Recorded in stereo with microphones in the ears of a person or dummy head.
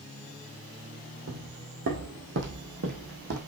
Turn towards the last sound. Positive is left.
turn(degrees=-50)  # may be behind; listen again after turning